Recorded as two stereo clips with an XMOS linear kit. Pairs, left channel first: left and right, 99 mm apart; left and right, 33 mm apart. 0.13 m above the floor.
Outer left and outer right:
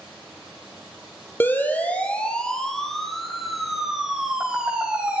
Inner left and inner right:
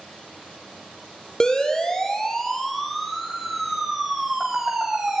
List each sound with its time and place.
1.4 s a siren: 20° left (ahead or behind), 3 m; by 5.2 s 10° right (ahead or behind), 5.5 m